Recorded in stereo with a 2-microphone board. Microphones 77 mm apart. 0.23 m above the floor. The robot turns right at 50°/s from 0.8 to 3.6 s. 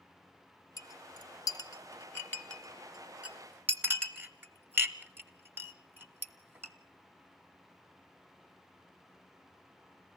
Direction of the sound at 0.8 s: 50° left (ahead or behind).